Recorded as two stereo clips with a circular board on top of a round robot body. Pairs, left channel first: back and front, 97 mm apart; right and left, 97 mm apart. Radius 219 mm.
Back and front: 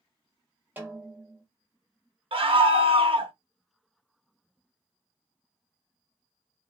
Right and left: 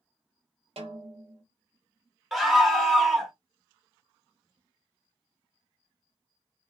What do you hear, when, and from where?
0.8 s a snare drum: 70° left, 0.7 m
2.3 s a scream: straight ahead, 1.3 m